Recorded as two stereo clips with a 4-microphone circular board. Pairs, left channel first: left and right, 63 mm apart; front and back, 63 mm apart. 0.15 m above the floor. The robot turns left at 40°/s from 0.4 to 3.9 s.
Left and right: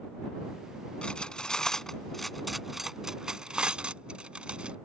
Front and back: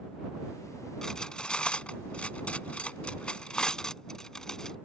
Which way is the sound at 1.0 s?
60° left.